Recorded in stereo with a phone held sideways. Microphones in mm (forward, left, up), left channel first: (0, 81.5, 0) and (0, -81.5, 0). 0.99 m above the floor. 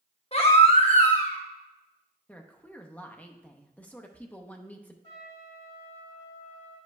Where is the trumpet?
40° left (ahead or behind), 2.5 m.